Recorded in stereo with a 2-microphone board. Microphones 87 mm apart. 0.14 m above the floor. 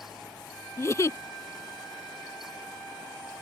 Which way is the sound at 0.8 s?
35° left (ahead or behind).